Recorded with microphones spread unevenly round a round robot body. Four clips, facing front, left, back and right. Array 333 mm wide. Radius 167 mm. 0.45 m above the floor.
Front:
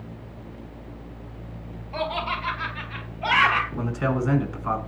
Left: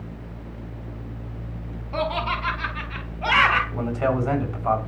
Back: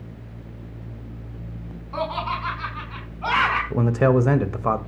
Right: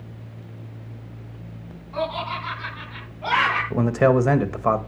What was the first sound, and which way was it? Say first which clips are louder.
Laughter: left 1 dB, back 1 dB; 115° left.